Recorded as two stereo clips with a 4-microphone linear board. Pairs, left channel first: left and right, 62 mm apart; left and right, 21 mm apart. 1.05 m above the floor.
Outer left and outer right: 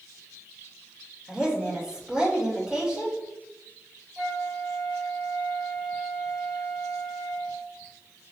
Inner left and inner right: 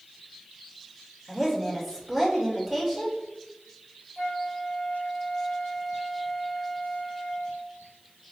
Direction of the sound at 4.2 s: 5° right (ahead or behind).